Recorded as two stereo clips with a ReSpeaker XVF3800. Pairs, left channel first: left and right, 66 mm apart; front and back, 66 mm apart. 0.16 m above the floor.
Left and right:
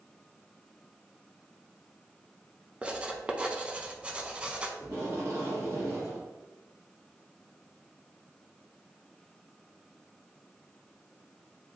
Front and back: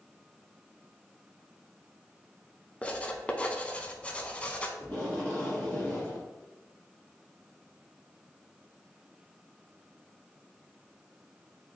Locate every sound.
2.8 s writing: 40° right, 0.5 m
4.8 s tape being pulled: 65° right, 2 m